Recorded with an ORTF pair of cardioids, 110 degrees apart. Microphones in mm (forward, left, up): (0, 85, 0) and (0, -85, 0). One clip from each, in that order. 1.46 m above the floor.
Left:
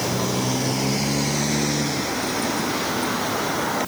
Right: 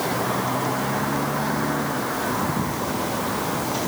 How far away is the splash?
No splash in this recording.